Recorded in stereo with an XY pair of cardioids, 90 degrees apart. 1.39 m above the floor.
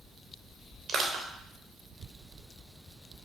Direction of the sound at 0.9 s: 70° right.